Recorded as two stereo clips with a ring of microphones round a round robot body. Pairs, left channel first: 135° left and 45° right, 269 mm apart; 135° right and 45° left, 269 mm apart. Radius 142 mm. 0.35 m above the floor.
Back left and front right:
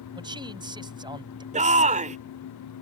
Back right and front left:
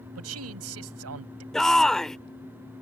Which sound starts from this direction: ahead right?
A shout, at 1.5 s.